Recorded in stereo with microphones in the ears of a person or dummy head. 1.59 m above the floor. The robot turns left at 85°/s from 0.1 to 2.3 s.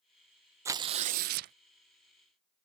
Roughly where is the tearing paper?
Ahead right.